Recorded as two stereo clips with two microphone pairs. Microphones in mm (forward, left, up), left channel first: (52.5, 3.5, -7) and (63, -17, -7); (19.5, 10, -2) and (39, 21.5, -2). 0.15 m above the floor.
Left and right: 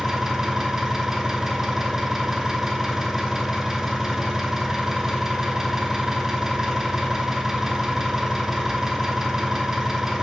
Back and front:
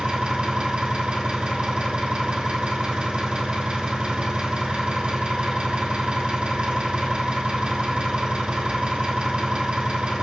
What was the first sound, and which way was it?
An engine running, straight ahead.